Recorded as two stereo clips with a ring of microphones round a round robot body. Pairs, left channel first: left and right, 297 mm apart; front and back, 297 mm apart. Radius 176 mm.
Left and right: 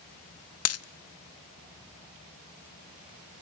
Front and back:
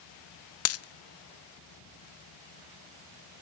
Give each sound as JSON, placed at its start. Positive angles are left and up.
{"t": 0.7, "sound": "a dropped coin", "azimuth_deg": 45, "distance_m": 0.6}